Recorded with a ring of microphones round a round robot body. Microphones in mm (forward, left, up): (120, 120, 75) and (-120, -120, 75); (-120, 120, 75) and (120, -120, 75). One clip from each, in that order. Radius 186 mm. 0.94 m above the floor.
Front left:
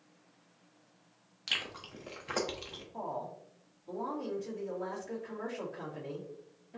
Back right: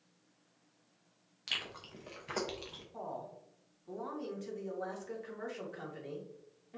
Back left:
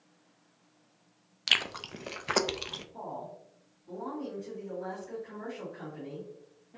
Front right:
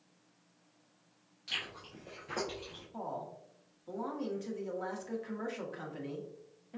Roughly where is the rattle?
I don't hear a rattle.